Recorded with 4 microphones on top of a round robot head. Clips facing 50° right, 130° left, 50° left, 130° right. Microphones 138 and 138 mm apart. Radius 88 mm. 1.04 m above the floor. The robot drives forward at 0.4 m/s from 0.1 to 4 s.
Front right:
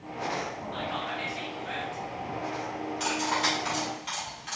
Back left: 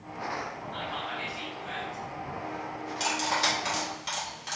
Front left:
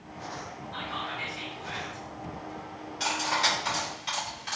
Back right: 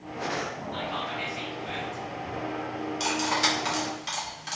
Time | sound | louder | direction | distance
0.7 | whispering | front right 3 dB, back right 2 dB | 65° right | 2 m
3.0 | cutlery clinking | even, back right 1 dB | 175° right | 1.5 m